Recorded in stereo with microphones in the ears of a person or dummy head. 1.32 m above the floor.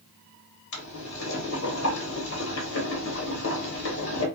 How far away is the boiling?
About 1.3 m.